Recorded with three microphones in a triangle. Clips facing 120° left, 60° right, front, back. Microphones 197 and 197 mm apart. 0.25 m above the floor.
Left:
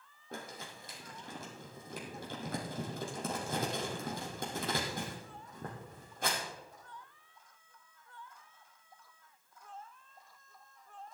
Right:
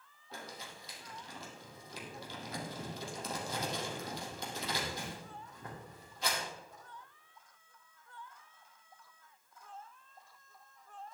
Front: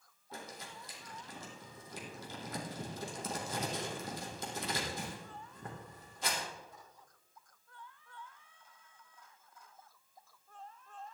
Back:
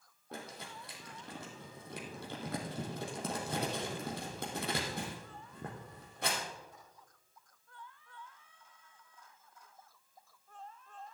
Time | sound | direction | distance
0.3 | crumpling | 155° left | 3.5 m